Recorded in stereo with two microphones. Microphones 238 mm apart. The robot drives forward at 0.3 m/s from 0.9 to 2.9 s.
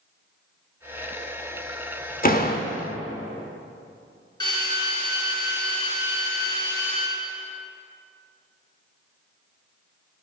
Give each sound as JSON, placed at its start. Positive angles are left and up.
{"t": 2.2, "sound": "a door slam", "side_deg": 35, "distance_m": 0.9}
{"t": 4.4, "sound": "a drill", "side_deg": 20, "distance_m": 4.0}